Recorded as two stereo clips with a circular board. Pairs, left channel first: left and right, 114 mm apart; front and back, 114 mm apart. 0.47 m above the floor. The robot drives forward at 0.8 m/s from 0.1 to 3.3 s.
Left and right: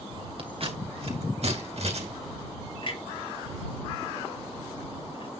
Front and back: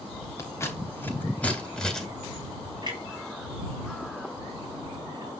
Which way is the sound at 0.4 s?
60° right.